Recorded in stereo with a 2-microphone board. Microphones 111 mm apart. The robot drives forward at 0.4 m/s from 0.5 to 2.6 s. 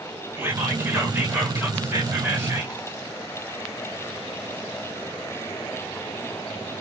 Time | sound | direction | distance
0.4 | whispering | 20° right (ahead or behind) | 1.3 m